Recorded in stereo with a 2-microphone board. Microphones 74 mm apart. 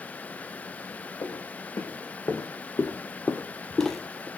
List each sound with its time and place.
1.2 s footsteps: 65° left (ahead or behind), 2 m; by 4.3 s 10° right (ahead or behind), 0.9 m